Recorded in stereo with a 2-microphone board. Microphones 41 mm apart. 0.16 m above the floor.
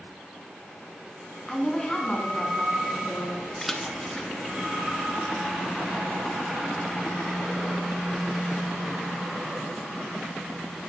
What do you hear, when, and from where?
1.5 s a woman speaking: 15° left (ahead or behind), 1.4 m; by 3.4 s 35° left (ahead or behind), 2.0 m
3.6 s a splash: 10° left (ahead or behind), 0.7 m